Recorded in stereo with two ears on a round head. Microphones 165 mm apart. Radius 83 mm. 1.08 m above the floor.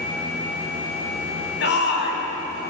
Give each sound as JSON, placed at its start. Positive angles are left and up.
{"t": 1.6, "sound": "a shout", "side_deg": 65, "distance_m": 9.0}